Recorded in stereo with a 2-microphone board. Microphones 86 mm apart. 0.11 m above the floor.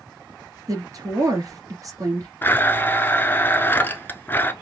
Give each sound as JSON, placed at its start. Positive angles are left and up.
{"t": 0.7, "sound": "a woman speaking", "side_deg": -45, "distance_m": 1.9}
{"t": 2.4, "sound": "a blender", "side_deg": 25, "distance_m": 0.8}